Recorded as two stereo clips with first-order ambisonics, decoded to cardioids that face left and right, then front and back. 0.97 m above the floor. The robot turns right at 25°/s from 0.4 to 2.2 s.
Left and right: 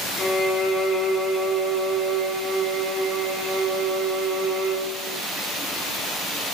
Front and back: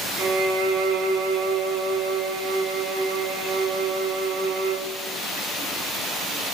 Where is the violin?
155° left, 2 m; by 4.9 s 160° right, 2 m.